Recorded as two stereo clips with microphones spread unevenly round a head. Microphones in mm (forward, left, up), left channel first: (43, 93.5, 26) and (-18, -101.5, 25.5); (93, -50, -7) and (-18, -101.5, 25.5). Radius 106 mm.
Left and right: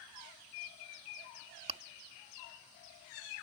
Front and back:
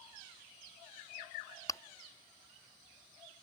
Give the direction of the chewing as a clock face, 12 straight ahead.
1 o'clock.